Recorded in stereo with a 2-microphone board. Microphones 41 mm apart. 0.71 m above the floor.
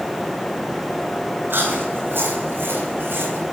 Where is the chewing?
70° right (ahead or behind), 4 m.